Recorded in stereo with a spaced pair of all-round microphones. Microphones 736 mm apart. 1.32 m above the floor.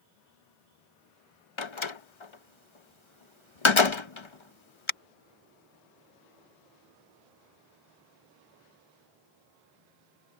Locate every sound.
1.6 s a door slam: 40° left (ahead or behind)